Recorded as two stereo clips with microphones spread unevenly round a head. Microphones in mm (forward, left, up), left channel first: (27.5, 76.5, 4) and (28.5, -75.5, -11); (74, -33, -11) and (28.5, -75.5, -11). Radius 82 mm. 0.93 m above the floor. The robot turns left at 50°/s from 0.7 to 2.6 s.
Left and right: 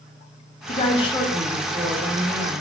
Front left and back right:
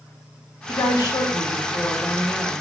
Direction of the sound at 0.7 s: 50° left.